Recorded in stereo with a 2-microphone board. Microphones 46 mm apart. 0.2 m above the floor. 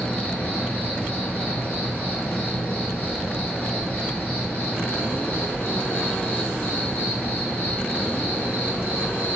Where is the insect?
40° left (ahead or behind), 2 m.